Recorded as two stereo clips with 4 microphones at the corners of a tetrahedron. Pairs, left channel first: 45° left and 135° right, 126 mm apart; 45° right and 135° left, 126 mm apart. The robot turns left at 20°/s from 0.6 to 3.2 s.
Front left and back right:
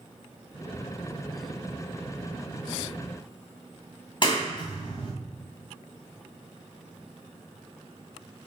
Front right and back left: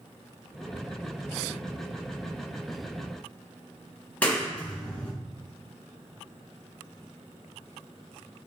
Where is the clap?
30° left, 1.5 m.